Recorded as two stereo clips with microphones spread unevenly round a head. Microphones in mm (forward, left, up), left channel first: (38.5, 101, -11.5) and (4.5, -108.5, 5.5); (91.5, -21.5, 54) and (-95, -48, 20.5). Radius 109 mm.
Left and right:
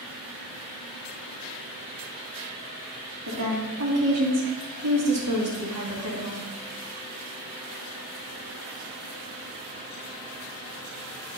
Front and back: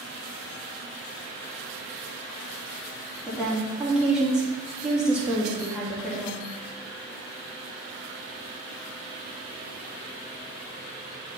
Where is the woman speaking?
85° right, 2.5 m.